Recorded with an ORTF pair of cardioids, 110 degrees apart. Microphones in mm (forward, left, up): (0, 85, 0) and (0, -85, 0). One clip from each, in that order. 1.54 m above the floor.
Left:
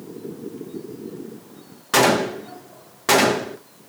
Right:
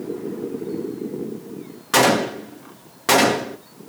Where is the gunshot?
Straight ahead, 0.6 m.